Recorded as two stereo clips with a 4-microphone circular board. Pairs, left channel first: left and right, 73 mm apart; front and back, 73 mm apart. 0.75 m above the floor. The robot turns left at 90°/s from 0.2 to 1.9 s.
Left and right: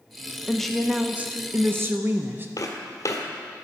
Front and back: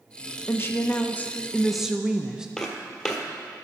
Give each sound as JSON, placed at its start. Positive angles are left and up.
{"t": 0.5, "sound": "a woman speaking", "azimuth_deg": 25, "distance_m": 0.5}
{"t": 2.6, "sound": "footsteps", "azimuth_deg": 80, "distance_m": 1.2}